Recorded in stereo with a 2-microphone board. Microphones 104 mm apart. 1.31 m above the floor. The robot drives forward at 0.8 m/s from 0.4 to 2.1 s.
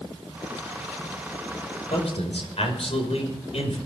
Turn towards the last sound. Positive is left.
turn(degrees=75)  # may be behind; listen again after turning